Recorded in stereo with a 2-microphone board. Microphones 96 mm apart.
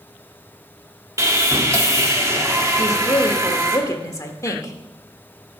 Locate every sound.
1.2 s sawing: 30° right (ahead or behind), 1.2 m
2.8 s a woman speaking: 35° left (ahead or behind), 1.2 m